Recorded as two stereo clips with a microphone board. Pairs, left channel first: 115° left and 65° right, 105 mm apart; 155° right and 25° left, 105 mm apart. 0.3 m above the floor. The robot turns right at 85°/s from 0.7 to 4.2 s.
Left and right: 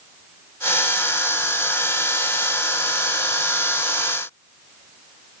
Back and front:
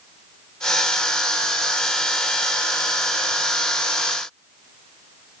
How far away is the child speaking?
I don't hear a child speaking.